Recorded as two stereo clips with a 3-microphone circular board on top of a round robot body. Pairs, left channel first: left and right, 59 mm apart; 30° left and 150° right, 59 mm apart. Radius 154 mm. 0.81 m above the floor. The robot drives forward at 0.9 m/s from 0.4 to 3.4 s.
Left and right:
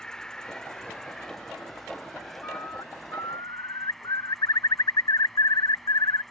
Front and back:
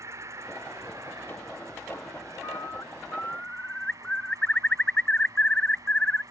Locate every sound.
0.0 s an insect: 170° left; by 6.3 s 175° left
2.4 s a bird: 50° left; by 6.2 s 105° left